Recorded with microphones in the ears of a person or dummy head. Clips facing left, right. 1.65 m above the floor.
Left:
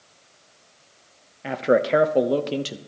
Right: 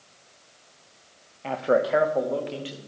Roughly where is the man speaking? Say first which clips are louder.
Left 3 dB; centre.